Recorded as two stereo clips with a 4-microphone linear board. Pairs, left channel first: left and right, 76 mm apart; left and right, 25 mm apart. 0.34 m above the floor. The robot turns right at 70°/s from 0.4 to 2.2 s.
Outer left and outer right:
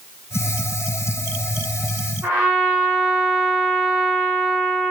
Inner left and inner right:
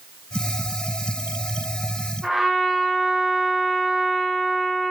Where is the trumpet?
15° right (ahead or behind), 1.3 m.